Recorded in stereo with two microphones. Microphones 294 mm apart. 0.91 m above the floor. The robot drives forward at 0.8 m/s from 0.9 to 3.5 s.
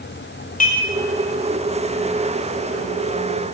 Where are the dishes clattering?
30° left (ahead or behind), 1.1 m.